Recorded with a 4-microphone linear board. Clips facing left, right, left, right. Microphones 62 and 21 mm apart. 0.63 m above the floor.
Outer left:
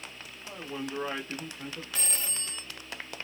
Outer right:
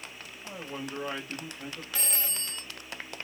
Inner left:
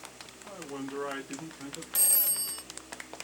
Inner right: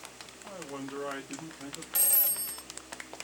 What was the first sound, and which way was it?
A man speaking, 15° right (ahead or behind).